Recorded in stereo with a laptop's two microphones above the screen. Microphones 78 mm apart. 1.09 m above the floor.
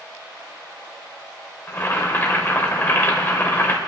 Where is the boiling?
30° left (ahead or behind), 3 m.